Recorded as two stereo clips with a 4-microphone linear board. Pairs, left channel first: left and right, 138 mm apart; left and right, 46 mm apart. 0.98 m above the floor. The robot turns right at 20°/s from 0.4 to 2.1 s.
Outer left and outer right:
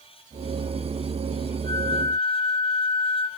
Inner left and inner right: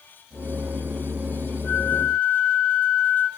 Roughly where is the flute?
Left.